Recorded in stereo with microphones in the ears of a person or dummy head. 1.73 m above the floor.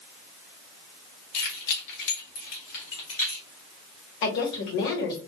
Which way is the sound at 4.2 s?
65° left (ahead or behind).